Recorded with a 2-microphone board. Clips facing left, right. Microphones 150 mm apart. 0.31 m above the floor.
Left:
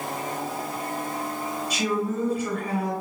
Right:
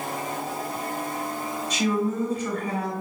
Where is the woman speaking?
10° left (ahead or behind), 1.3 m.